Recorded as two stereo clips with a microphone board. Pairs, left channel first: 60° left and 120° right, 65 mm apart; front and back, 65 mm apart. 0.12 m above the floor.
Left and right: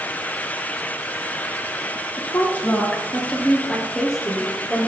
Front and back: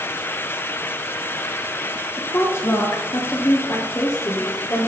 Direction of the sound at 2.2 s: 30° left.